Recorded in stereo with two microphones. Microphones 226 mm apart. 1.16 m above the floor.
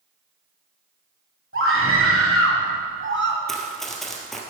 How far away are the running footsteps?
About 1.8 m.